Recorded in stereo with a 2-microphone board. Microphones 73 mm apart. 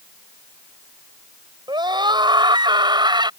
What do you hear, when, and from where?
1.7 s a scream: 85° right; by 3.3 s 80° right